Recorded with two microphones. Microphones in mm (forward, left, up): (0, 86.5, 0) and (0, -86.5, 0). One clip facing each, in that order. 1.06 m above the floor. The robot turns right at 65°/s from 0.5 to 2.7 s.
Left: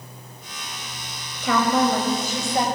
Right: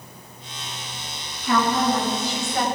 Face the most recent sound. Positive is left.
turn(degrees=160)